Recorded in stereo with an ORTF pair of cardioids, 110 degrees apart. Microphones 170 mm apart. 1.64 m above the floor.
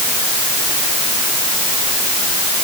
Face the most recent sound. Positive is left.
No sound to turn to.